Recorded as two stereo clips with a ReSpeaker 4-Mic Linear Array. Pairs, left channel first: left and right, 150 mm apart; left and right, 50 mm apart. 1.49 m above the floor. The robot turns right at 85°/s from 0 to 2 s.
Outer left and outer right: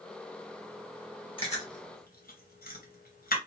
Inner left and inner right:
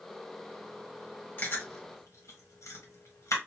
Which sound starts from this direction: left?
Chewing, at 1.4 s.